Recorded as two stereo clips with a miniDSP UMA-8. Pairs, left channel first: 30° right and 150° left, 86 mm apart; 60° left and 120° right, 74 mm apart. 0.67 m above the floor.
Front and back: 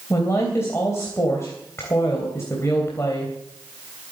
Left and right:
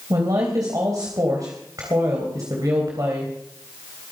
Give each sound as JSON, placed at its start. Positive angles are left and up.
{"t": 0.1, "sound": "a woman speaking", "azimuth_deg": -85, "distance_m": 3.0}